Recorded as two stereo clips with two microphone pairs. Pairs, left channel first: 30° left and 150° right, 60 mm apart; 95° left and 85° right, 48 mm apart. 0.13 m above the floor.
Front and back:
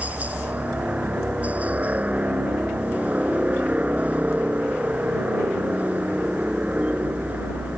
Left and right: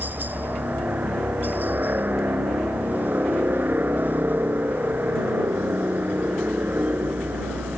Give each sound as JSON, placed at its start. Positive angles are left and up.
{"t": 0.0, "sound": "a helicopter", "azimuth_deg": -100}